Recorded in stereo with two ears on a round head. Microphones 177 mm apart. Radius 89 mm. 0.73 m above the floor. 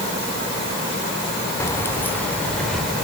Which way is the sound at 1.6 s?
15° left (ahead or behind).